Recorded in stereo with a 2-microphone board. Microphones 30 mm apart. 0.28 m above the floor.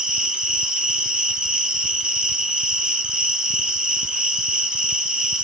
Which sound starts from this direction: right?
An insect, at 0.0 s.